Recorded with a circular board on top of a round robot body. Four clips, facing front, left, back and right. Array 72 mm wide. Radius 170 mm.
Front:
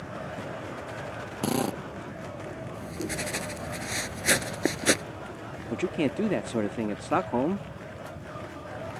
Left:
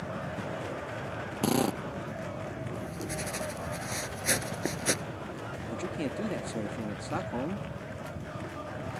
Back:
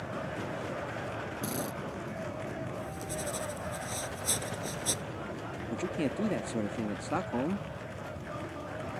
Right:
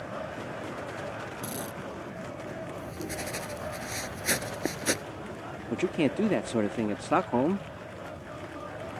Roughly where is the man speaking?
Ahead right.